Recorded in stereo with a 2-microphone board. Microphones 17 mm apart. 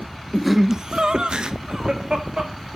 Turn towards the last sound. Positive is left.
turn(degrees=-50)  # may be behind; listen again after turning